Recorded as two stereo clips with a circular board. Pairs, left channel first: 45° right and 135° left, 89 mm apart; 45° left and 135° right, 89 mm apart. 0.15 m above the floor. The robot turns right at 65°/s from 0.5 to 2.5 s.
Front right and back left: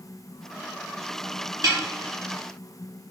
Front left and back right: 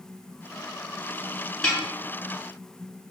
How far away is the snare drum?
About 1.2 m.